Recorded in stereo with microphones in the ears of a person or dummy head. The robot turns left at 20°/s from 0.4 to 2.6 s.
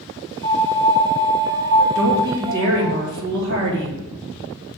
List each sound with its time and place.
0.4 s a piano: 80° right, 1.8 m; by 3.0 s 120° right, 1.8 m
1.9 s a woman speaking: 70° right (ahead or behind), 1.9 m; by 4.0 s 55° right (ahead or behind), 1.9 m